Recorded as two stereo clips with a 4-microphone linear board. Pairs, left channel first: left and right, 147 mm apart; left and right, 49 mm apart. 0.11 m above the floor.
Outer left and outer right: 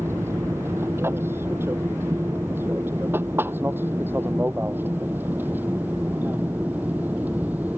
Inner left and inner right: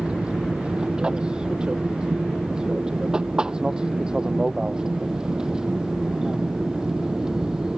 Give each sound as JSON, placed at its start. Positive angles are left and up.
{"t": 0.0, "sound": "an aircraft", "side_deg": -20}